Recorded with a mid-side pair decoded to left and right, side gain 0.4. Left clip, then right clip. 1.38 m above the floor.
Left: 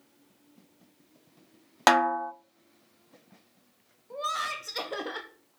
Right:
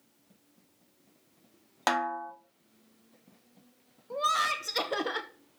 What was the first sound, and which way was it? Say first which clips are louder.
A snare drum: left 7 dB; 55° left.